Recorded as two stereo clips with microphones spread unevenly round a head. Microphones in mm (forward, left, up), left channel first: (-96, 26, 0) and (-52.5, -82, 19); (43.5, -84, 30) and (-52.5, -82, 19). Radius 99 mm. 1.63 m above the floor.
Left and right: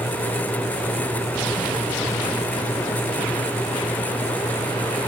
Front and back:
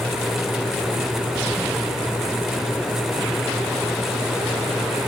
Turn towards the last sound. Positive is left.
No sound to turn to.